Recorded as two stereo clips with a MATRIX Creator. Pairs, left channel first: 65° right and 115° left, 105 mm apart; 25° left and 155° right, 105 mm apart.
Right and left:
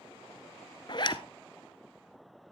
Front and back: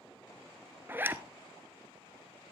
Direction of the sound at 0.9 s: 90° right.